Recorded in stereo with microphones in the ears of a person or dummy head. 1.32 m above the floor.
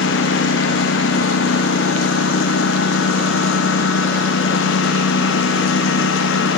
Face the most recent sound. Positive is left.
turn(degrees=80)